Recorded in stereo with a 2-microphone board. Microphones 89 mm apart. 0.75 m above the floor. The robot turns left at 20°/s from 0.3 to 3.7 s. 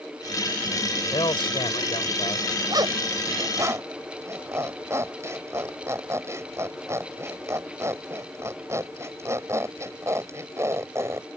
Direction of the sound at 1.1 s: 65° left (ahead or behind).